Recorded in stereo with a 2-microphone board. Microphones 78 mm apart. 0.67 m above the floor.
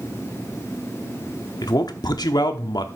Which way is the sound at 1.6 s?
60° left (ahead or behind).